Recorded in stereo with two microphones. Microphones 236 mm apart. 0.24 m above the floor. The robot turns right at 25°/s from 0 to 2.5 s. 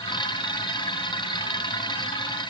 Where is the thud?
I don't hear a thud.